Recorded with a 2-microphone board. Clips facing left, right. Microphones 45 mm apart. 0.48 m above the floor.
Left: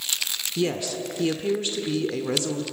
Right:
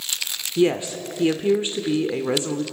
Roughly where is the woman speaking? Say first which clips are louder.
Right 6 dB; right.